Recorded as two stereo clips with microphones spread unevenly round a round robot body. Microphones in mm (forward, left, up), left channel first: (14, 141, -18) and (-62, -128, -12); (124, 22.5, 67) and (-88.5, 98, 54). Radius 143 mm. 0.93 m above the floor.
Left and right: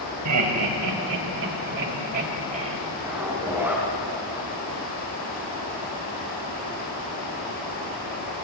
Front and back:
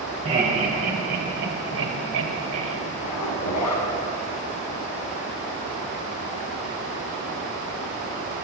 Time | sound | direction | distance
0.2 | laughter | 130° right | 4.5 m
3.0 | a zipper | 20° right | 4.5 m